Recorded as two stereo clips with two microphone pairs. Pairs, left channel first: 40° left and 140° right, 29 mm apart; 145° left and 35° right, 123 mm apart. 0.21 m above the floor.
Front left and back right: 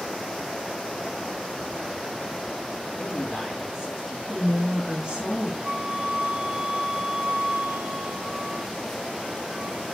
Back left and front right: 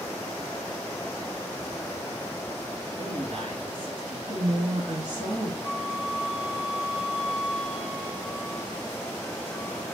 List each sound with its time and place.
3.0 s a man speaking: 70° right, 3.5 m
4.3 s a woman speaking: 80° right, 3 m
5.6 s a flute: 110° right, 1.9 m